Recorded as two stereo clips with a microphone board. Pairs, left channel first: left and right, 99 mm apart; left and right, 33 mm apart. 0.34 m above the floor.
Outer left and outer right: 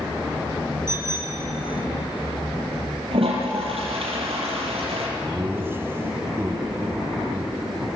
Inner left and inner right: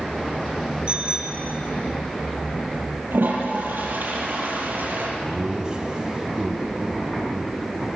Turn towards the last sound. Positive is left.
turn(degrees=-25)  # may be behind; listen again after turning